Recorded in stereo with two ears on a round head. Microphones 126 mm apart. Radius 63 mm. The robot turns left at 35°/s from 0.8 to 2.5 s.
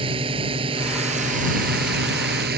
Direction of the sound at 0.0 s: 40° right.